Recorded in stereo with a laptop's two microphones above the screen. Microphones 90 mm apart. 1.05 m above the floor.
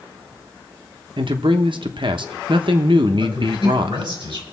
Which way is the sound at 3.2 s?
60° right (ahead or behind).